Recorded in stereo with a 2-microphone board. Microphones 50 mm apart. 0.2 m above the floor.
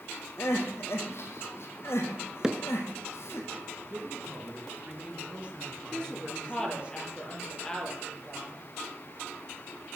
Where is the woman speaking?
15° left (ahead or behind), 5.5 m.